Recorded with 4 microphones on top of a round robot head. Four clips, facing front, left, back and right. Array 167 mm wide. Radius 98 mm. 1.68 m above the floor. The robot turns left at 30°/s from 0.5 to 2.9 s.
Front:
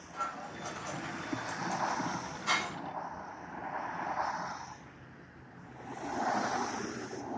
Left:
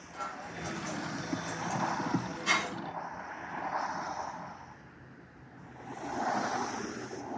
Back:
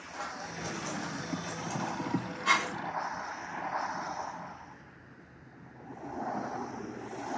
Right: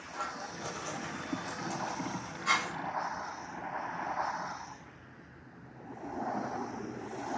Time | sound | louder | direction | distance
0.1 | scissors | even, front 1 dB | 135° right | 1.4 m